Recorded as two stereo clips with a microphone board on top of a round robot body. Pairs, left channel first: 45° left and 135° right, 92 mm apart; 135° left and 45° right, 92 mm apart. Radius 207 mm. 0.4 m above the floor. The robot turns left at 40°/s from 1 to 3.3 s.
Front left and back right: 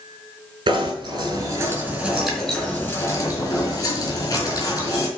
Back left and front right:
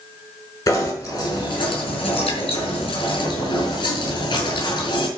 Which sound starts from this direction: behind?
Knocking, at 0.7 s.